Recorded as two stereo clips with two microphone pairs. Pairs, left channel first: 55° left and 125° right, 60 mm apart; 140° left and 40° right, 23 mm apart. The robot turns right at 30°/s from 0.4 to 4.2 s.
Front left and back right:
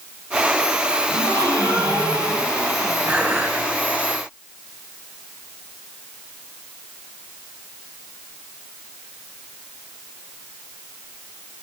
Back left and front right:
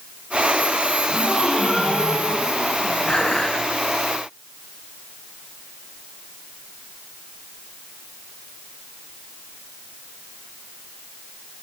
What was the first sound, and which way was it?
A gasp, 125° right.